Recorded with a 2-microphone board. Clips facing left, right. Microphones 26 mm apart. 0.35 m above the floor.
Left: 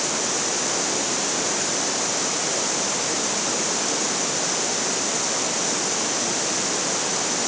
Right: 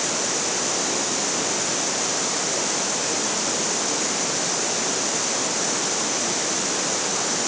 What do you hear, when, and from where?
Only background noise.